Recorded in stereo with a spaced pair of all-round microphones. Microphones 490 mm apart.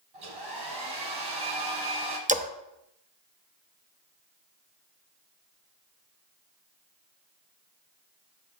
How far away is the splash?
About 0.6 m.